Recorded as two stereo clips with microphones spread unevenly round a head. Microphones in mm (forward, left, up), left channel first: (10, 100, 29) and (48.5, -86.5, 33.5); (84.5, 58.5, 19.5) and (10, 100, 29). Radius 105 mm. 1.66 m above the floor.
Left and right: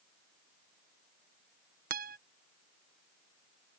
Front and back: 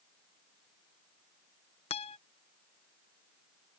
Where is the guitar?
35° right.